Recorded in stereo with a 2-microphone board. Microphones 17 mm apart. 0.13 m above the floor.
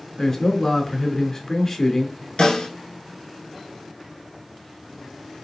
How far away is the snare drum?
About 1.9 m.